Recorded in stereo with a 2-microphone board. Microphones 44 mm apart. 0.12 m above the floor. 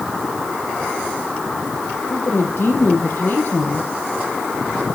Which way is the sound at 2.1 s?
60° left (ahead or behind).